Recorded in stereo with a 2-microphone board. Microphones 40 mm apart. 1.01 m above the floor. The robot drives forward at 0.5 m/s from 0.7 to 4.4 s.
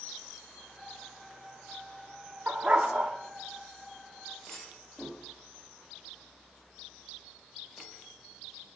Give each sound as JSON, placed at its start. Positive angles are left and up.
{"t": 2.5, "sound": "a dog barking", "side_deg": -35, "distance_m": 0.6}
{"t": 4.5, "sound": "a clunk", "side_deg": 35, "distance_m": 5.0}